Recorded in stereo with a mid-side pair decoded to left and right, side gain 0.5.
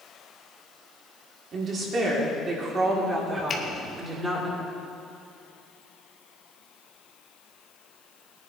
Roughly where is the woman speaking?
Ahead right.